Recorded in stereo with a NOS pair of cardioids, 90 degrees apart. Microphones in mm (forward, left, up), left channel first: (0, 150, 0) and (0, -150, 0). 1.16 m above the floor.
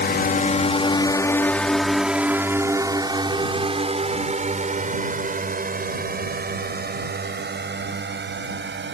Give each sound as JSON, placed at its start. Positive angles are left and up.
{"t": 0.0, "sound": "a drone", "azimuth_deg": 35}